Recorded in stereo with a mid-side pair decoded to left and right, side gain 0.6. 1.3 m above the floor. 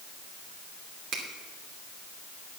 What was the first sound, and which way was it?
A finger snap, 65° right.